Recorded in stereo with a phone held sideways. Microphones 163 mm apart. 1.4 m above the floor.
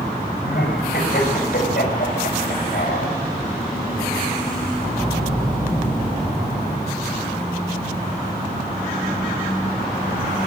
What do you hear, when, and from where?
0.4 s laughter: 80° left, 7 m; by 3.1 s 65° left (ahead or behind), 6.5 m